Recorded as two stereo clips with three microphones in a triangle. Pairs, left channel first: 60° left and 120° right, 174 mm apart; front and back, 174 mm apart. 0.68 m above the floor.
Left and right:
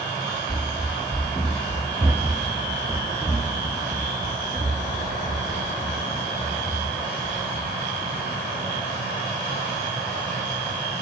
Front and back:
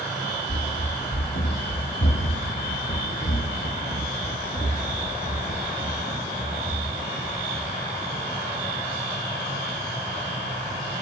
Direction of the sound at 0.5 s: 10° left.